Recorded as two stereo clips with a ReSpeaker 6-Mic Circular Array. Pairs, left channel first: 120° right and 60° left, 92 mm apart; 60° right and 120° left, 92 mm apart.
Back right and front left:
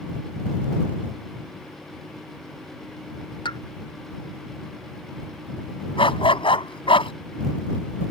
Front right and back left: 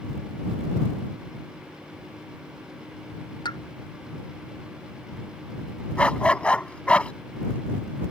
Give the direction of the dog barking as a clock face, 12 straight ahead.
5 o'clock.